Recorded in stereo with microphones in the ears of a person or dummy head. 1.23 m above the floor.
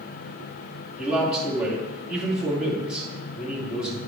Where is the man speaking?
Centre (ahead or behind), 2.5 m.